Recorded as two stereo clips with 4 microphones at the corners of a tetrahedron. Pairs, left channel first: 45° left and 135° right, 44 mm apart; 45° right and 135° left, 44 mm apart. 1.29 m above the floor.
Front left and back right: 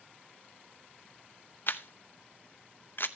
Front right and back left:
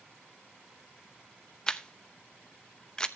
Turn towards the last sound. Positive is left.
turn(degrees=30)